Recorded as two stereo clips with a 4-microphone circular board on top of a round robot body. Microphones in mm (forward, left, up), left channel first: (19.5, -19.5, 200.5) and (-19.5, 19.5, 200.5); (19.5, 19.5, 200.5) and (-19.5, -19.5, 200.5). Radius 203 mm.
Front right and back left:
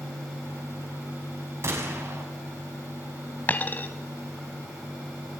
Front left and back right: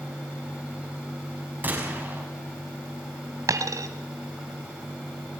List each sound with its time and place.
1.6 s a gunshot: 170° left, 6 m
3.5 s a dropped coin: 105° right, 0.9 m